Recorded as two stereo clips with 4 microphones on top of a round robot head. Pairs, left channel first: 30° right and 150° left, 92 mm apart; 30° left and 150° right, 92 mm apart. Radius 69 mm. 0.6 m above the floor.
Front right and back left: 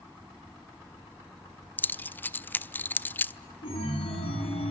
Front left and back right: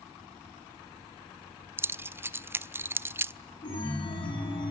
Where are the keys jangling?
95° right, 0.6 m.